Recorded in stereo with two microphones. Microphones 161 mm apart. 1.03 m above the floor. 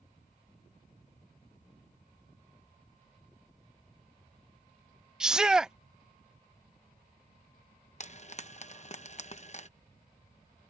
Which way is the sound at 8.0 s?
45° left (ahead or behind).